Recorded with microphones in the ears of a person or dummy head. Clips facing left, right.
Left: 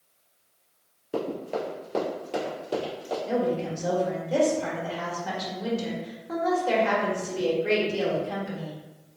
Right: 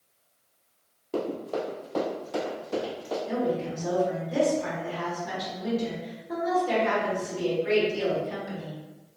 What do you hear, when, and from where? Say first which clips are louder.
1.1 s running footsteps: even; 20° left (ahead or behind), 1.5 m; by 3.2 s 45° left (ahead or behind), 2.5 m
3.3 s a woman speaking: left 2 dB; 80° left, 1.7 m